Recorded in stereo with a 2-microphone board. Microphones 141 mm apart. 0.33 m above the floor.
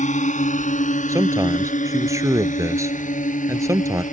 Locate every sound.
0.0 s a drone: 60° left (ahead or behind)
1.1 s a man speaking: 20° right (ahead or behind)